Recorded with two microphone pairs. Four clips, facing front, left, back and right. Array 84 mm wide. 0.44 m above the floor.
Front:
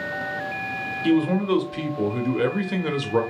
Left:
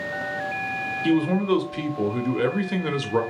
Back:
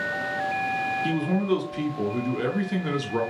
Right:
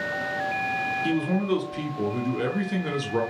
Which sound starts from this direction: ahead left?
A man speaking, at 1.0 s.